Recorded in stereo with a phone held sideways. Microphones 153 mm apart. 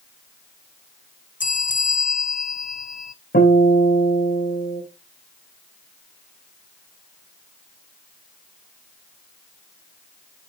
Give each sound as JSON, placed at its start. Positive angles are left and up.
{"t": 1.4, "sound": "a bell", "side_deg": 55, "distance_m": 0.6}
{"t": 3.3, "sound": "a guitar", "side_deg": 80, "distance_m": 4.0}